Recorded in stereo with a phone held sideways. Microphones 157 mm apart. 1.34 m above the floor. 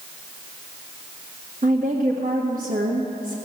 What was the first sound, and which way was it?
A woman speaking, 65° right (ahead or behind).